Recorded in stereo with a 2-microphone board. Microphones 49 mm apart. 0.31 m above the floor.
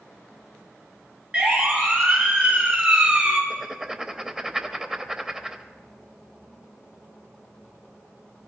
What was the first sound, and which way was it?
A siren, 20° right (ahead or behind).